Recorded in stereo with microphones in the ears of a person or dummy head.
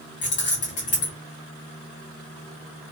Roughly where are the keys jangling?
Left.